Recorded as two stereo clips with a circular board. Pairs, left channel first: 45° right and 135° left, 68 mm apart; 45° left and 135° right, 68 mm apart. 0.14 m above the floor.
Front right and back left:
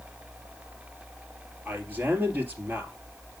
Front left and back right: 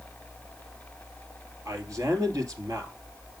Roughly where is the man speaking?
Behind.